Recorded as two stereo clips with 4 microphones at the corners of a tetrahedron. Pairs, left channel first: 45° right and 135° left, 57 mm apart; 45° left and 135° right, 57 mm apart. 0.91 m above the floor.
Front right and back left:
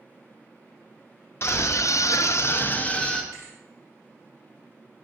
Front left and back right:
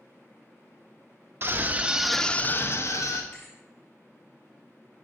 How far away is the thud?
About 3 m.